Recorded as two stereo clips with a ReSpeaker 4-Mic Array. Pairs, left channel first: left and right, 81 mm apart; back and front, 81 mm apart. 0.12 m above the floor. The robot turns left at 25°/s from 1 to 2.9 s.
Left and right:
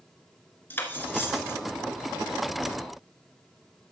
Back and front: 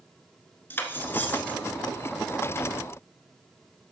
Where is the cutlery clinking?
135° left, 1.0 m; by 1.6 s 120° left, 1.0 m.